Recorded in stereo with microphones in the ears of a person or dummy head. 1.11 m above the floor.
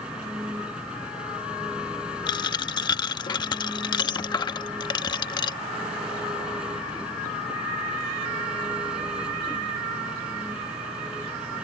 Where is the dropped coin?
25° left (ahead or behind).